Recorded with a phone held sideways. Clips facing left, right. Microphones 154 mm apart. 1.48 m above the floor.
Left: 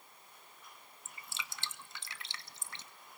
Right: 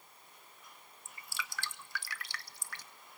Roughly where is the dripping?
Left.